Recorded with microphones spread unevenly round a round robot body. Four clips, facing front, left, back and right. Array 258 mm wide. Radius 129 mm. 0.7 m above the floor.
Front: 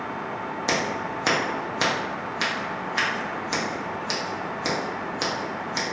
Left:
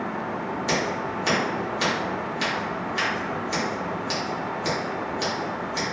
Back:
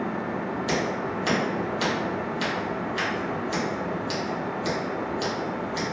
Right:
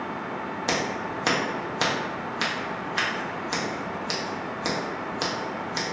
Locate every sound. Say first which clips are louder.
0.7 s scissors: left 1 dB, front 1 dB; 45° right, 0.9 m